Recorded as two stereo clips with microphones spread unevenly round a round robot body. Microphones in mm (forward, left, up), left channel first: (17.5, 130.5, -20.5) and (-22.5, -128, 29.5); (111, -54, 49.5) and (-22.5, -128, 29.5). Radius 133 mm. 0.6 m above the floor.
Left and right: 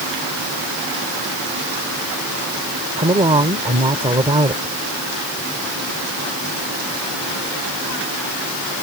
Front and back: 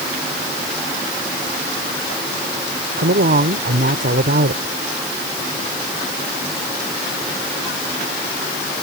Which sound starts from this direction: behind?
A woman speaking, at 3.0 s.